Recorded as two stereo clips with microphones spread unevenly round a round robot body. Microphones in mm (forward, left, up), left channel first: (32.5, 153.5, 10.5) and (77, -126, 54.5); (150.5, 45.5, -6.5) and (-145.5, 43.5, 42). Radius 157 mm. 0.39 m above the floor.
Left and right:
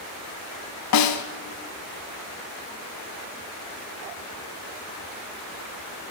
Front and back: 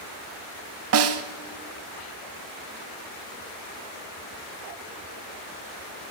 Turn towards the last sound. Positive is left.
turn(degrees=135)